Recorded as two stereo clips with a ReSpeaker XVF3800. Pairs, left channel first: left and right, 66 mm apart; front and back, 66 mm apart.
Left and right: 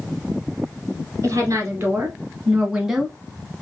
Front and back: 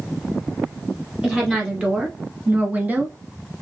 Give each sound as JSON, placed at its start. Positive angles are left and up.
{"t": 1.2, "sound": "a woman speaking", "azimuth_deg": -115, "distance_m": 1.6}